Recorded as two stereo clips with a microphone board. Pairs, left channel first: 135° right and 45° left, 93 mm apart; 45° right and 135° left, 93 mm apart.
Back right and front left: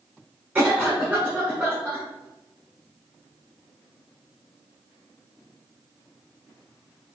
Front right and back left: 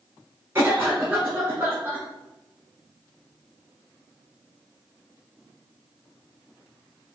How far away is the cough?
About 1.2 m.